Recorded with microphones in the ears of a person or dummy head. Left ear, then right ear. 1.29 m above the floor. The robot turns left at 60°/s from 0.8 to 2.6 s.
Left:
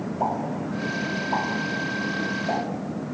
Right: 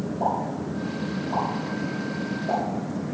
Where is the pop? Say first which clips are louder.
Even; 40° left (ahead or behind), 1.7 m; by 2.6 s 35° left (ahead or behind), 1.7 m.